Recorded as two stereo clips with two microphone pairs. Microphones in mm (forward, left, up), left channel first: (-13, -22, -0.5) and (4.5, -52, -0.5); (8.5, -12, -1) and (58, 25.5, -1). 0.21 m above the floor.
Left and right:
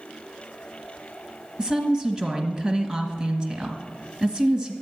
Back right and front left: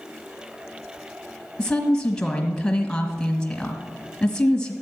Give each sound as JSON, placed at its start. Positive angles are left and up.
{"t": 1.6, "sound": "a woman speaking", "azimuth_deg": -75, "distance_m": 1.7}